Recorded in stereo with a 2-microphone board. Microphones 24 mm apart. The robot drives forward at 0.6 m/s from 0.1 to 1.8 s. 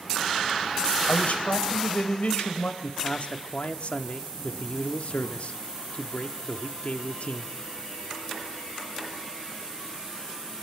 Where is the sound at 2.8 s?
60° left (ahead or behind), 1.4 m.